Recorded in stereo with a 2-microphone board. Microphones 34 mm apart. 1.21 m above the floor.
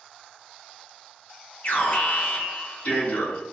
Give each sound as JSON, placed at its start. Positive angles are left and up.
{"t": 1.6, "sound": "an alarm", "side_deg": 60, "distance_m": 1.0}